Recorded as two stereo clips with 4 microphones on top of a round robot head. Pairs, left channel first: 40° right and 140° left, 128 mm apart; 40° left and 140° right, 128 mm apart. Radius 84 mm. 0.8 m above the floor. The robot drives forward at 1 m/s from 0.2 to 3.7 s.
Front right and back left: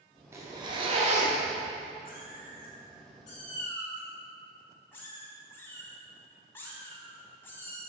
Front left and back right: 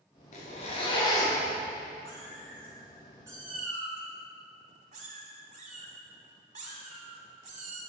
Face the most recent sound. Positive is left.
turn(degrees=-115)